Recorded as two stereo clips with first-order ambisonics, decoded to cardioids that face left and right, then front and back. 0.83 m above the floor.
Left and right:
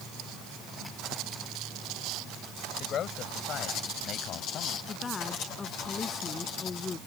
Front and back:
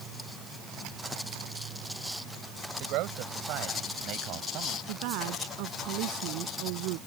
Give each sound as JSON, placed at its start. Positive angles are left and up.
{"t": 2.8, "sound": "a man speaking", "azimuth_deg": 150}
{"t": 4.9, "sound": "a woman speaking", "azimuth_deg": 165}